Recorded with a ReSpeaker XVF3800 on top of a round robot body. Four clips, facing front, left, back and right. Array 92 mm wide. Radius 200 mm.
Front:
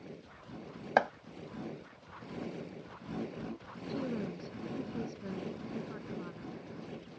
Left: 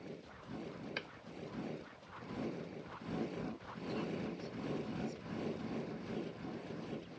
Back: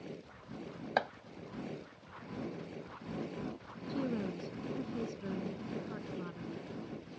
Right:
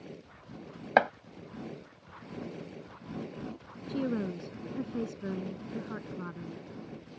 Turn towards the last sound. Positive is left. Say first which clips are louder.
# right 9 dB, back 1 dB
turn(degrees=-95)